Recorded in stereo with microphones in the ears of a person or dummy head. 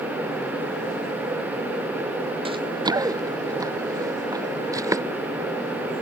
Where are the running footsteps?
25° right (ahead or behind); by 5.0 s 15° right (ahead or behind).